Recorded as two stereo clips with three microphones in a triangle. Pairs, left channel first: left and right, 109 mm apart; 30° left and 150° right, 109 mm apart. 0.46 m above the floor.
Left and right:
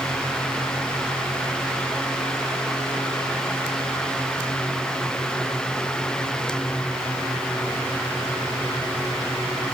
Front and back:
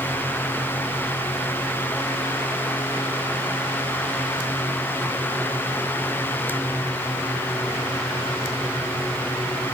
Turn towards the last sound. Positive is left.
No sound to turn to.